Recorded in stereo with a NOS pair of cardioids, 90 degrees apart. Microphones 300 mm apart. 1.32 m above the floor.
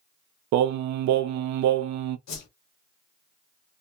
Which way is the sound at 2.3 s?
65° left.